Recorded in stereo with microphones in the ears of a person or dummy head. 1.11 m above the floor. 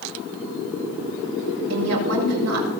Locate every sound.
1.7 s a woman speaking: 85° right, 5 m